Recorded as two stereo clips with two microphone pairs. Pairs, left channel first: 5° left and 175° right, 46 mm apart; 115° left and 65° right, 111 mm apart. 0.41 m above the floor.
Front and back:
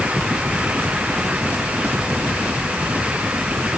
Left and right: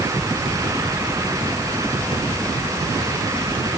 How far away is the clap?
No clap in this recording.